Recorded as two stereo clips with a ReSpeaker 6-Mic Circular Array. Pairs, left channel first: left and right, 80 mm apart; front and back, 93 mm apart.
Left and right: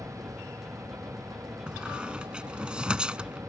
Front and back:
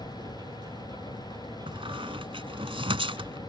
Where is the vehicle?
40° right.